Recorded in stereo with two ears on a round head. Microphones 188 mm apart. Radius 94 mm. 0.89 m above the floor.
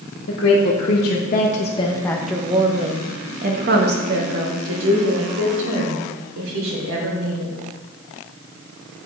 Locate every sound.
0.3 s a woman speaking: 65° left (ahead or behind), 1.4 m; by 7.5 s 75° right (ahead or behind), 3.5 m